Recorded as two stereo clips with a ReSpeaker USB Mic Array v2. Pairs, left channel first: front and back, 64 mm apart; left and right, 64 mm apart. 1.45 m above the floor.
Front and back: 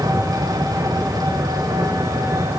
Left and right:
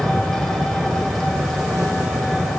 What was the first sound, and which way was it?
An engine running, 175° left.